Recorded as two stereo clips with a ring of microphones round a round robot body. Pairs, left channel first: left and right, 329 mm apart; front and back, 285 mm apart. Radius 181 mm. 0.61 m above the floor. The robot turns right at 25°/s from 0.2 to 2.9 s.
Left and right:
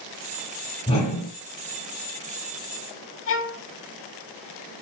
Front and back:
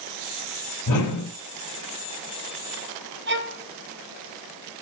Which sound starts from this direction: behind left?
A violin, at 3.3 s.